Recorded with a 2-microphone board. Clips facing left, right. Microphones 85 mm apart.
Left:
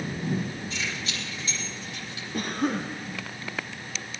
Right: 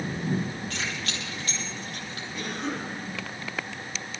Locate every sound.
0.7 s keys jangling: 65° right (ahead or behind), 6 m; by 2.2 s 50° right (ahead or behind), 6.5 m
2.3 s a cough: 55° left (ahead or behind), 2.0 m